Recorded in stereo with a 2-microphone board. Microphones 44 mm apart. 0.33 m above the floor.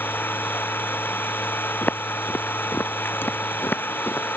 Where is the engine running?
50° left (ahead or behind).